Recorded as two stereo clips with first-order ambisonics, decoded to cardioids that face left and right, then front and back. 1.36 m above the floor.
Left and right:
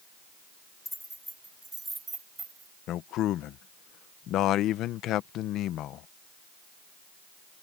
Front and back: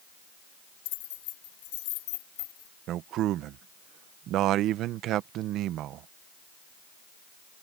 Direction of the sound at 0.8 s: 5° left.